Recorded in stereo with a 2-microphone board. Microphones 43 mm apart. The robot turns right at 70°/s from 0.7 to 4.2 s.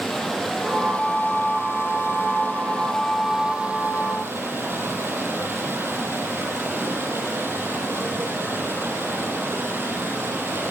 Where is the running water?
5° left, 7.5 m; by 10.7 s 110° right, 7.5 m.